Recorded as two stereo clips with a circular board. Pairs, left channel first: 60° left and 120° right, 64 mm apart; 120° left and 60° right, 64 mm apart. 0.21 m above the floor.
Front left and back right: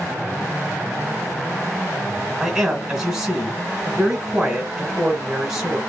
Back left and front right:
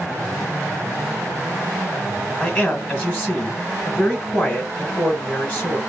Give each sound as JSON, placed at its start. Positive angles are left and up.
{"t": 2.4, "sound": "a man speaking", "azimuth_deg": 175, "distance_m": 1.1}